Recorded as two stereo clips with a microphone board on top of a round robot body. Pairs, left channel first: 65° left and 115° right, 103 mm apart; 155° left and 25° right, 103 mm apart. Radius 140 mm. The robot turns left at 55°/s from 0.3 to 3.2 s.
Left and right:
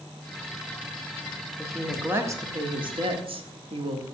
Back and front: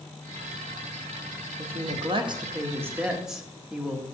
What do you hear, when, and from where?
1.6 s a woman speaking: 20° right, 1.4 m; by 4.0 s 105° right, 1.4 m